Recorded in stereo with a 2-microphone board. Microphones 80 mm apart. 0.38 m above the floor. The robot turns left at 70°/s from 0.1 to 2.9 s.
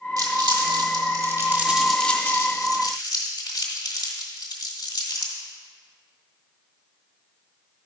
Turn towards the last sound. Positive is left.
turn(degrees=55)  # may be behind; listen again after turning